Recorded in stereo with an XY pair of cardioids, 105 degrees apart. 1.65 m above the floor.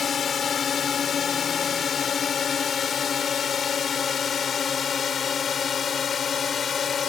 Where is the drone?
50° left.